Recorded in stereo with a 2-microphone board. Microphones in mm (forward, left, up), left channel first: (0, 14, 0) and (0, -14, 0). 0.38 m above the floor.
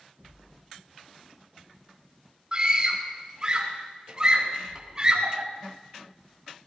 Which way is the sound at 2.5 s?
30° right (ahead or behind).